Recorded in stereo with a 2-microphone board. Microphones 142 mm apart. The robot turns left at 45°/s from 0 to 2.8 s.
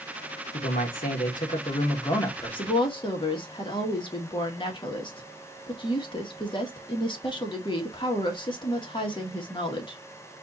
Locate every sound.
0.5 s a man speaking: 105° left, 1.8 m; by 2.7 s 5° left, 1.8 m
2.6 s a woman speaking: 45° left (ahead or behind), 1.8 m; by 10.0 s 35° left (ahead or behind), 1.8 m